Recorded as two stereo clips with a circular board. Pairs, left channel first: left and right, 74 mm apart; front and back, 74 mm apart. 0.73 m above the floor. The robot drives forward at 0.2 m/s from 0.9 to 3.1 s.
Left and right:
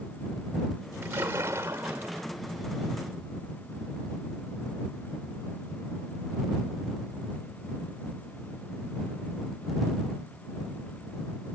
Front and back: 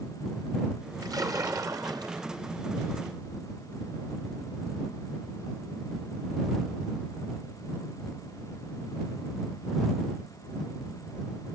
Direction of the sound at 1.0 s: 145° right.